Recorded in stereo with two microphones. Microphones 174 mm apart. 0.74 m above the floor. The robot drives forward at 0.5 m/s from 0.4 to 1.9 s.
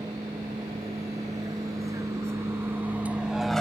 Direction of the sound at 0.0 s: 20° right (ahead or behind).